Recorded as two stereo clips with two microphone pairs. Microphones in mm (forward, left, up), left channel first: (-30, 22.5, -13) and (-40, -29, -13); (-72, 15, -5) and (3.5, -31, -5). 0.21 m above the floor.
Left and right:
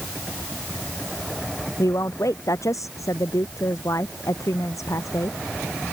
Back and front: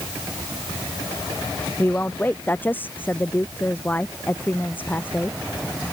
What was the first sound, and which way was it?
A woman speaking, 80° left.